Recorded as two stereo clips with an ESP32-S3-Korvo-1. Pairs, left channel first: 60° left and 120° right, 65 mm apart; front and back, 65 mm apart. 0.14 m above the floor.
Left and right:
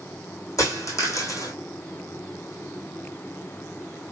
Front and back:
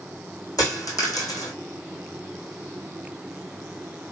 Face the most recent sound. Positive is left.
turn(degrees=25)